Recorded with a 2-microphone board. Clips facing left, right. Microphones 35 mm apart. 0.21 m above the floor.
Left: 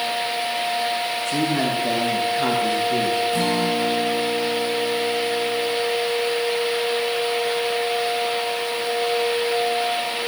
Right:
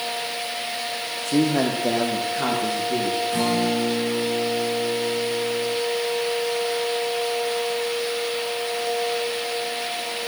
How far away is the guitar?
About 10 m.